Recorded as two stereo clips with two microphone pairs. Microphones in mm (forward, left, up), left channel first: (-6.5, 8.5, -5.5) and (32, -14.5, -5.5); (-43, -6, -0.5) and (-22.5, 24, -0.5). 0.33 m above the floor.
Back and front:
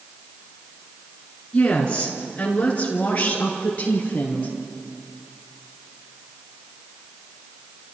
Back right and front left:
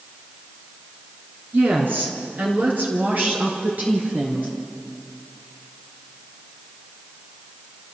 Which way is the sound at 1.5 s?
85° left.